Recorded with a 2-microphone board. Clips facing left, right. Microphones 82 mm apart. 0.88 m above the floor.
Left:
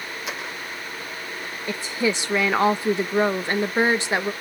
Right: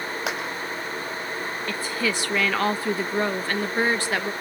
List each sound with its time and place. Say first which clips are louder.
0.3 s a clap: right 4 dB; 80° right, 4.5 m
1.7 s a woman speaking: left 4 dB; 20° left (ahead or behind), 0.6 m